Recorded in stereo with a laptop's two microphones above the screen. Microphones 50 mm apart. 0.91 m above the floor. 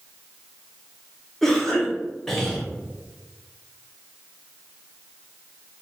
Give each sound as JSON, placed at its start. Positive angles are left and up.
{"t": 1.4, "sound": "a cough", "side_deg": 5, "distance_m": 0.7}